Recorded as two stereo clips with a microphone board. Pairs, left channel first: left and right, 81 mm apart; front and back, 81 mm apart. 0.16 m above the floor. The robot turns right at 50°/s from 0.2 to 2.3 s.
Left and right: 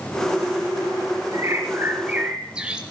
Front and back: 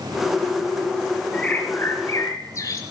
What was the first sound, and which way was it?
A bird, 65° right.